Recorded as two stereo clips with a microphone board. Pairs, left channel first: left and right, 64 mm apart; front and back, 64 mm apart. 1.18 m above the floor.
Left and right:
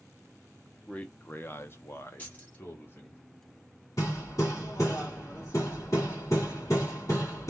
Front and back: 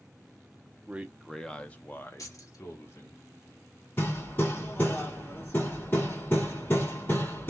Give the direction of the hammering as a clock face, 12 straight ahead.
10 o'clock.